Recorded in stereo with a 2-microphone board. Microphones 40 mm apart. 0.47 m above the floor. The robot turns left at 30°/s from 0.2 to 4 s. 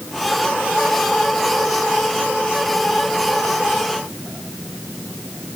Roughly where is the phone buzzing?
No phone buzzing in this recording.